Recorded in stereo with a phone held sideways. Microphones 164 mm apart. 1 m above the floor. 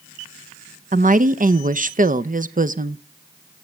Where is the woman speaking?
55° right (ahead or behind), 0.6 m.